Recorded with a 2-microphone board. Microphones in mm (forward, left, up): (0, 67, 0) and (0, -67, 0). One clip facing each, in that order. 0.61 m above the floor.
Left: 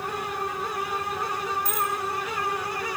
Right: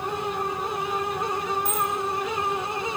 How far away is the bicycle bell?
About 5 m.